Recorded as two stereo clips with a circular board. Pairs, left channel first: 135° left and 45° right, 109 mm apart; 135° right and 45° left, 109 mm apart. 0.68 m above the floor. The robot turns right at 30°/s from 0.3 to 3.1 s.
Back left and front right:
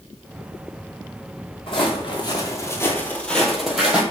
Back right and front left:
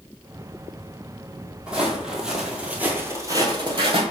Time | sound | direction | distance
1.7 | footsteps | 120° left | 1.0 m